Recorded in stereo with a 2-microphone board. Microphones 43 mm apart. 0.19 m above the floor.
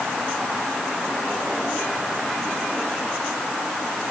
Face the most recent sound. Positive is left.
No sound to turn to.